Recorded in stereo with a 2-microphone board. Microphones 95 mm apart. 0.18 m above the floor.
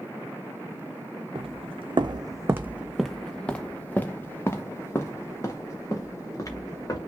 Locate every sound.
1.4 s footsteps: 80° right, 0.7 m; by 7.0 s 35° left (ahead or behind), 2.5 m